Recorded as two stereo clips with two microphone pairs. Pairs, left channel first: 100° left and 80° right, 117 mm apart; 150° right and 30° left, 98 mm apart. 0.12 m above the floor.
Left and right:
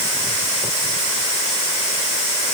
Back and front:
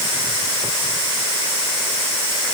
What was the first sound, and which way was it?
Only background noise.